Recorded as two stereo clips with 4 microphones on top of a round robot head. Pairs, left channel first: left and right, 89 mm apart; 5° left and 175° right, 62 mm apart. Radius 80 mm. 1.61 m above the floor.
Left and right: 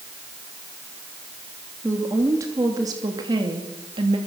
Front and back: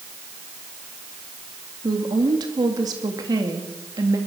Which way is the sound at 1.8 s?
155° right.